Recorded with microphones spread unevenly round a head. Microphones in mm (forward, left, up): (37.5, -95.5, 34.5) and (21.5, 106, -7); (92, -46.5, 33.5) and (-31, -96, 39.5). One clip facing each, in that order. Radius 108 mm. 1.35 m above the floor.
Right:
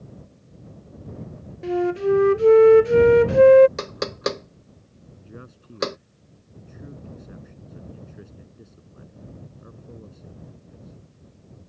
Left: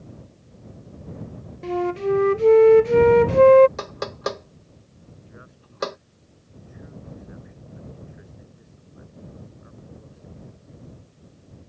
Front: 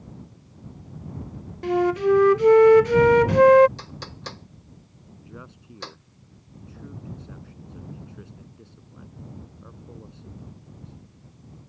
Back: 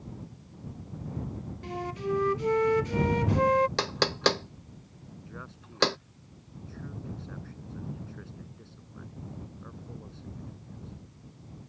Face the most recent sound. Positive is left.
turn(degrees=-50)